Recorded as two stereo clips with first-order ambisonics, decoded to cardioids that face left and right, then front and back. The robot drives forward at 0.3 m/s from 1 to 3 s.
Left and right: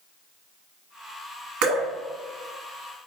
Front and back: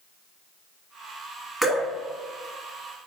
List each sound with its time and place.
1.6 s dripping: 95° right, 1.1 m; by 1.9 s 100° right, 1.1 m